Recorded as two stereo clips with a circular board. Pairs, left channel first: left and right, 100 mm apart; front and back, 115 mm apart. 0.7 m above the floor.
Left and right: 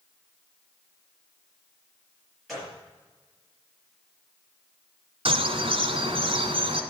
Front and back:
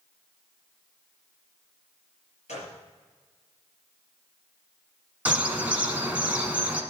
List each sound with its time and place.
2.5 s a gunshot: straight ahead, 5 m
5.2 s a bird: 100° right, 1.5 m